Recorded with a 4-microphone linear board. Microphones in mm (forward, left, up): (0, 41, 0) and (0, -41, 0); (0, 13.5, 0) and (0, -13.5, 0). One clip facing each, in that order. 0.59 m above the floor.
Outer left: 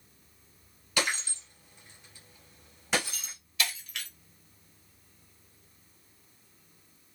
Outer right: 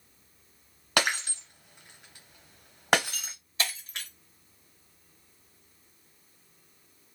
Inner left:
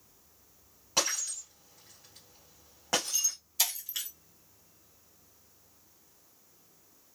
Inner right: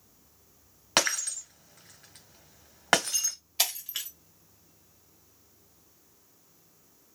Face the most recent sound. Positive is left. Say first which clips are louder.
# even, inner right 2 dB
turn(degrees=-35)  # may be behind; listen again after turning